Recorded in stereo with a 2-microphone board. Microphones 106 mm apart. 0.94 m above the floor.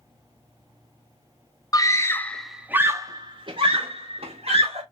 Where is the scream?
35° left (ahead or behind), 0.6 m; by 4.8 s 70° right (ahead or behind), 1.2 m.